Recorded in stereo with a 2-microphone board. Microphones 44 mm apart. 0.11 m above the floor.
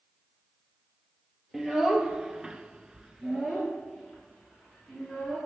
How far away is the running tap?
I don't hear a running tap.